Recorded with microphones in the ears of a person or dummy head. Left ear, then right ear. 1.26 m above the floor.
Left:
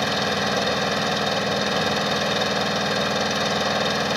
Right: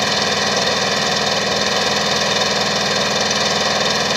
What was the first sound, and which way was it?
An engine running, 25° right (ahead or behind).